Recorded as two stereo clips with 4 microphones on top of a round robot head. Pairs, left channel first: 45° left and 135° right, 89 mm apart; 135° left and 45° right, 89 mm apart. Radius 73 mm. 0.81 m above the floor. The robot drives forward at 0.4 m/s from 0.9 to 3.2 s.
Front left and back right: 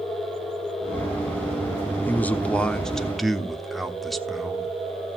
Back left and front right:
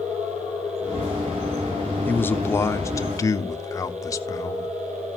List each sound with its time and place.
2.0 s a man speaking: 90° left, 1.1 m; by 4.7 s 130° left, 1.2 m